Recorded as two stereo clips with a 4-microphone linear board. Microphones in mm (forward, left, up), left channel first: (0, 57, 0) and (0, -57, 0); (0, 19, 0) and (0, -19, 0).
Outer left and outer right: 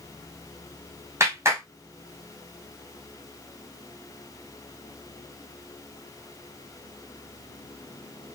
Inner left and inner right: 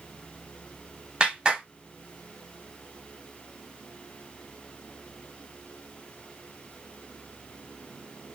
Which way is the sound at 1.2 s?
25° right (ahead or behind).